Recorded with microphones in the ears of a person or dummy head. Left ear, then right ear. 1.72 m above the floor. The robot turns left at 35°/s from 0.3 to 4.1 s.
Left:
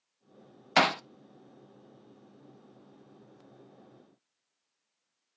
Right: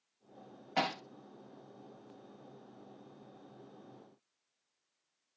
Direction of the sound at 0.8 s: 55° left (ahead or behind).